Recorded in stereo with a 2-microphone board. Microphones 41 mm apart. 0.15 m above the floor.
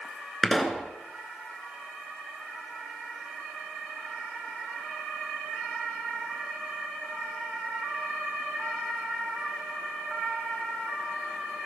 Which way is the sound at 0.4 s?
5° left (ahead or behind).